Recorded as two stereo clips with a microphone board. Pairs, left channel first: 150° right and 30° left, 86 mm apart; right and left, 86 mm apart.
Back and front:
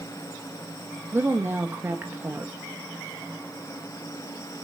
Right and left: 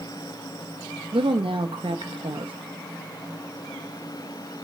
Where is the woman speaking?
95° left, 1.0 m.